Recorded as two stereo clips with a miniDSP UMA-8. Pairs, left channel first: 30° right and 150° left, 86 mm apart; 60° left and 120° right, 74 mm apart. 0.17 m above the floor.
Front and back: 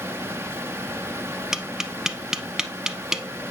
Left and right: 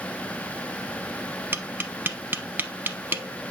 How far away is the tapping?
About 0.6 m.